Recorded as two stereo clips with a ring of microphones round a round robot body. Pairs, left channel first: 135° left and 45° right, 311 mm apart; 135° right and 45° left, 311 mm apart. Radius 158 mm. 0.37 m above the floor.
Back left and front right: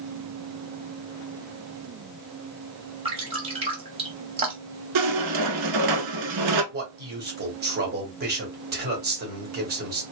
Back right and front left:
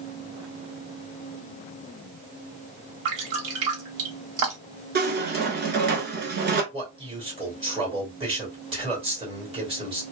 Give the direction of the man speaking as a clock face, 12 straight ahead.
12 o'clock.